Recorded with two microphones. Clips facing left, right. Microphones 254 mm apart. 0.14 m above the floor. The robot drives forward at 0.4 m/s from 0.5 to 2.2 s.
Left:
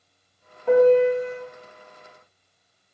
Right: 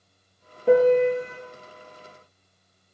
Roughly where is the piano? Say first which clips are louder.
Left 2 dB; right.